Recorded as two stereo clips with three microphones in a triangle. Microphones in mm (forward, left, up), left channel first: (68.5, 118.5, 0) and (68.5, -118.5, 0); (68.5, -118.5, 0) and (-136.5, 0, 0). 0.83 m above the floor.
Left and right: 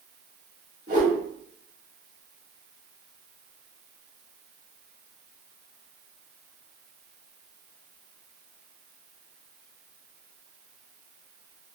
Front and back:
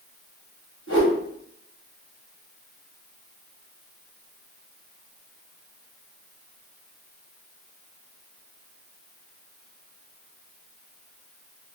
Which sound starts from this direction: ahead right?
A whoosh, at 0.9 s.